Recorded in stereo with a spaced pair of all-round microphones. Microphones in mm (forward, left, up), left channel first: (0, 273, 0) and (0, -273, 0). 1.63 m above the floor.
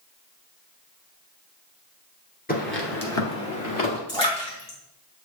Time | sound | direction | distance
2.5 | footsteps | 15° left (ahead or behind) | 1.6 m
4.1 | a splash | 50° left (ahead or behind) | 2.5 m